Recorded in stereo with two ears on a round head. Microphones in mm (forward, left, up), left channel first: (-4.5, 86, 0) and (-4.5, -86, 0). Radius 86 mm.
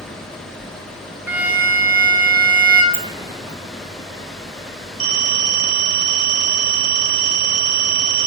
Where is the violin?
10° right (ahead or behind), 1.0 m.